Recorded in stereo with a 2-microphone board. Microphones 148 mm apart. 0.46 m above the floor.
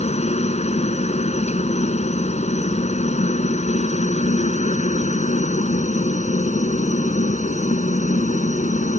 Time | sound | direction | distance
0.0 | a helicopter | 45° left (ahead or behind) | ?